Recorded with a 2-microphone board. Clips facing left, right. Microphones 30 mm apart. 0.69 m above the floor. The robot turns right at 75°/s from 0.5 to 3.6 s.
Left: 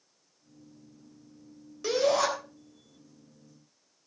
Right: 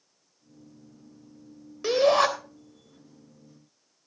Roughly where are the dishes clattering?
I don't hear dishes clattering.